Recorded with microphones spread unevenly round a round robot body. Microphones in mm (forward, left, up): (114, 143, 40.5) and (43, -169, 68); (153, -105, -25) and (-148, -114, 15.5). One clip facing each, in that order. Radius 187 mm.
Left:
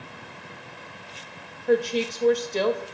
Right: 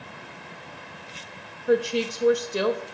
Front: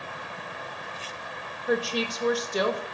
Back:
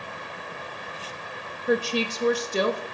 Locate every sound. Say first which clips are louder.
1.7 s a woman speaking: even, back 2 dB; 175° right, 0.8 m